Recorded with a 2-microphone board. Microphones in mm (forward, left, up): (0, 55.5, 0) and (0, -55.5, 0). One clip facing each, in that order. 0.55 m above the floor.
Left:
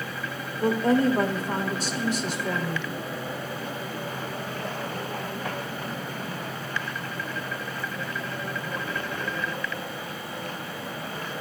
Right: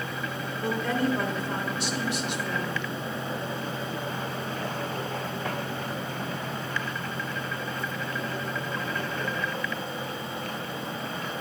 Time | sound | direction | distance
0.6 | a woman speaking | 40° left (ahead or behind) | 1.6 m